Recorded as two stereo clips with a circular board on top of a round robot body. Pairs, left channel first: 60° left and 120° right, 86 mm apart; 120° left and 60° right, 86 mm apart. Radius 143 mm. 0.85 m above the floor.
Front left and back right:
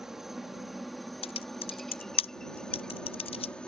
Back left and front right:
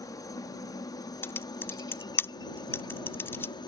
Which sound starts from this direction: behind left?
A helicopter, at 0.0 s.